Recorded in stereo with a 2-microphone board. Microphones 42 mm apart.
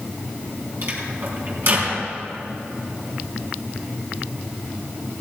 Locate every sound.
0.8 s a microwave: 50° right (ahead or behind), 4.5 m